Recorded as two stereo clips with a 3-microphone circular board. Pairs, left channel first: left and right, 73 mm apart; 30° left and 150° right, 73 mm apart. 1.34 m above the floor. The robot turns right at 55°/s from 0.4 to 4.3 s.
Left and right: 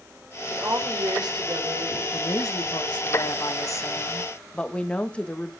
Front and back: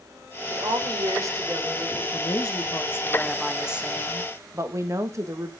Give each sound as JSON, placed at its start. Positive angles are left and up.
{"t": 0.5, "sound": "a woman speaking", "azimuth_deg": -150, "distance_m": 5.0}
{"t": 2.1, "sound": "a woman speaking", "azimuth_deg": 45, "distance_m": 1.8}